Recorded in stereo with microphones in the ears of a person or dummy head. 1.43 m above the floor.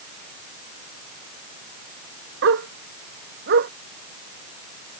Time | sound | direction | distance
2.4 | a dog barking | 70° right (ahead or behind) | ?